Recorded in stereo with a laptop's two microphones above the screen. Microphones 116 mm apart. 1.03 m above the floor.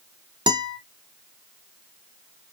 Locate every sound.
0.5 s a guitar: 40° right (ahead or behind), 0.8 m